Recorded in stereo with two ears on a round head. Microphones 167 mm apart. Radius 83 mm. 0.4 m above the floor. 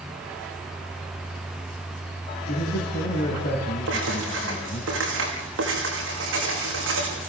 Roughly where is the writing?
Right.